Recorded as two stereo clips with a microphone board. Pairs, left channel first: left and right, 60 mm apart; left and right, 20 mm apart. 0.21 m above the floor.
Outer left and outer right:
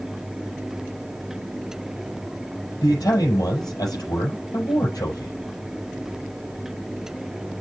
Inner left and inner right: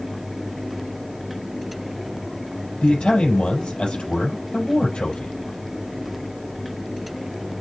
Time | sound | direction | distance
2.8 | a man speaking | 70° left (ahead or behind) | 5.5 m